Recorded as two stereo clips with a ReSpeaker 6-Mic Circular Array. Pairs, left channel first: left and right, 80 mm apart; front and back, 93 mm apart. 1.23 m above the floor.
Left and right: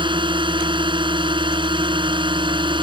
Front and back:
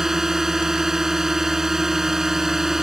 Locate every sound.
0.0 s a drone: 95° right